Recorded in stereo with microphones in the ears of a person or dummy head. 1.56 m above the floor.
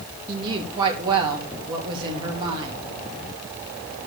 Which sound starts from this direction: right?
A woman speaking, at 0.3 s.